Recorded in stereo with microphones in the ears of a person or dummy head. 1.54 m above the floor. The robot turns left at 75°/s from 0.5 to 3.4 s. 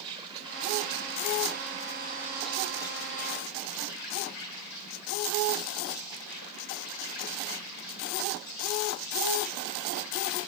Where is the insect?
30° right, 2.5 m; by 10.5 s 110° left, 2.5 m.